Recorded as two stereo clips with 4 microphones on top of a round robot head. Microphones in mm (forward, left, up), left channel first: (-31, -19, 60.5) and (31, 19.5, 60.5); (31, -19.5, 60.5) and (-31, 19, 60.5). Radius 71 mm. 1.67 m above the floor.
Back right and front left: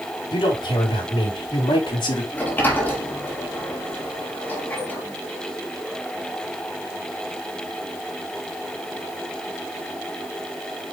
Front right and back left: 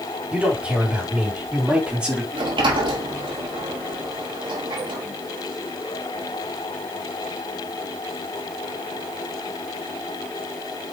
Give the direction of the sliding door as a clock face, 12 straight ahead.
7 o'clock.